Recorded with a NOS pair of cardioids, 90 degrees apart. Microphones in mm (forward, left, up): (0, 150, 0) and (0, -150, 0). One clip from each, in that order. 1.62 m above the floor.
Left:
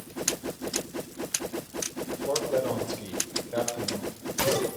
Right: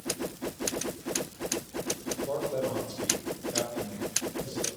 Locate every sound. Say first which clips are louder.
2.3 s a man speaking: left 5 dB; 40° left, 7 m; by 4.7 s 50° left, 8 m